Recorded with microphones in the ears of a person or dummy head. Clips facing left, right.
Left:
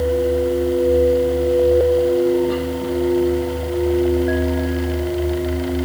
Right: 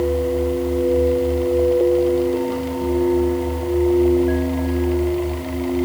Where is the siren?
I don't hear a siren.